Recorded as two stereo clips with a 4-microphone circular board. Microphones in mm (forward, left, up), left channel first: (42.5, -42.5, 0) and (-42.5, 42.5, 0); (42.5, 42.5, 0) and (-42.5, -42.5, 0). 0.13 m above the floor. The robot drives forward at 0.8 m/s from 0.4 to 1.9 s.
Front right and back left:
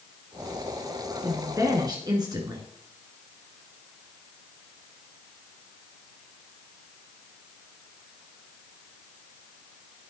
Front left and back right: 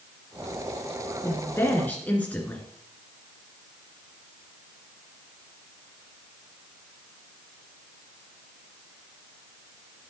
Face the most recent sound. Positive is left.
turn(degrees=115)